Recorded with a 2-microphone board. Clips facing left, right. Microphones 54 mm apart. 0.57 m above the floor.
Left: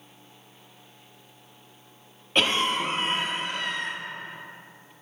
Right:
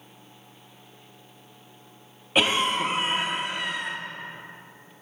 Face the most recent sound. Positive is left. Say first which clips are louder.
# right 1 dB
turn(degrees=-10)  # may be behind; listen again after turning